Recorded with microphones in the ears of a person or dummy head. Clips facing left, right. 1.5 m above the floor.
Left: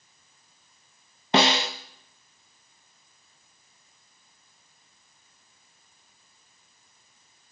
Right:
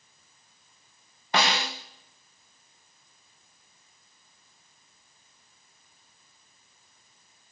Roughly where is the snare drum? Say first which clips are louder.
Left 5 dB; left.